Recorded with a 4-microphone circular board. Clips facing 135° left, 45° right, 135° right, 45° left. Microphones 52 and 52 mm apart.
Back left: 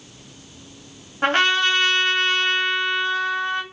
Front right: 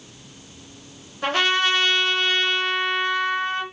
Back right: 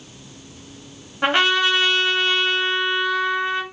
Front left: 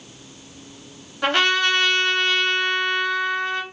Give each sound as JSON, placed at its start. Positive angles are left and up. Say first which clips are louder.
{"t": 1.2, "sound": "a trumpet", "louder": "back left 2 dB, back right 1 dB", "azimuth_deg": 160, "distance_m": 1.4}